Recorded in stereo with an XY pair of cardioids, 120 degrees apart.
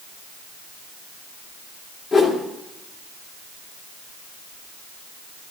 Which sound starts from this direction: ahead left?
A whoosh, at 2.1 s.